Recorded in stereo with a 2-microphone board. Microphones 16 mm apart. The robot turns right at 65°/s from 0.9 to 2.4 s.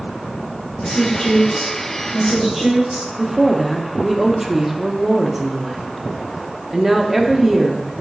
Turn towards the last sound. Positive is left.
turn(degrees=-15)  # may be behind; listen again after turning